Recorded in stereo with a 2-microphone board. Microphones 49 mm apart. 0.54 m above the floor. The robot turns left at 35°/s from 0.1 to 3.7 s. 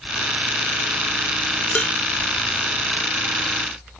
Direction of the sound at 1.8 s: 25° left (ahead or behind).